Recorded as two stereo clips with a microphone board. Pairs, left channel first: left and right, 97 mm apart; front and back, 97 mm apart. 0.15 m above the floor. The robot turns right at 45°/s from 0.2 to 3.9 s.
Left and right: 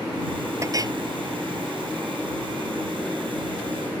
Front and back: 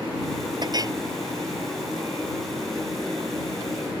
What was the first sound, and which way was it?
A clink, 145° right.